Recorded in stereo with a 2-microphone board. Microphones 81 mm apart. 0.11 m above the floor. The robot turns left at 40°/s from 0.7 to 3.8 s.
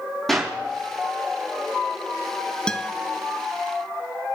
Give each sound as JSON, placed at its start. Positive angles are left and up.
{"t": 0.3, "sound": "a clap", "side_deg": 5, "distance_m": 4.0}
{"t": 2.7, "sound": "a guitar", "side_deg": 10, "distance_m": 0.5}